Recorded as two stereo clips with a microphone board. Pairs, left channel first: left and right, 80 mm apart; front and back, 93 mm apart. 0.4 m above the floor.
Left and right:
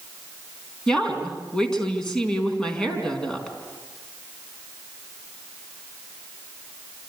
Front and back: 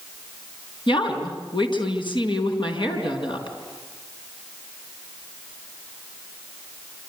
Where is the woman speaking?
10° left, 4.5 m.